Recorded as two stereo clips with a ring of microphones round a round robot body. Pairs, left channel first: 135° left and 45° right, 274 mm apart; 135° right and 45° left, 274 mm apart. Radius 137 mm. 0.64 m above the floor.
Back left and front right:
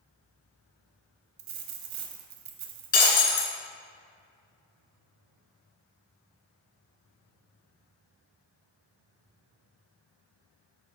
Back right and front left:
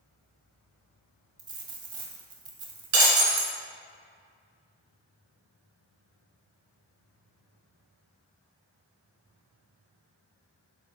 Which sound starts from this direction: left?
Breaking glass, at 2.9 s.